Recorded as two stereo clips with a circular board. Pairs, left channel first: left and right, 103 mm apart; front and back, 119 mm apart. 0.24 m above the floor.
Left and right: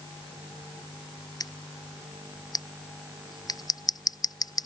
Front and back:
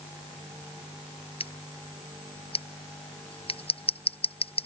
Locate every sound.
1.4 s scissors: 40° left